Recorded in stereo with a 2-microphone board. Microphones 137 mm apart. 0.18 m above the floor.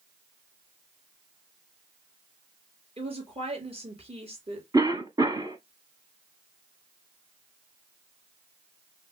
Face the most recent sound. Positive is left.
turn(degrees=-30)  # may be behind; listen again after turning